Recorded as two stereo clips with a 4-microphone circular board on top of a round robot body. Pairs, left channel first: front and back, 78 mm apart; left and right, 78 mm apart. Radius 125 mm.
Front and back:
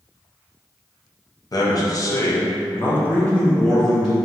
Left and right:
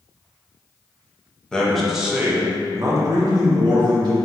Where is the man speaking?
10° left, 0.9 m; by 4.2 s 90° right, 1.2 m.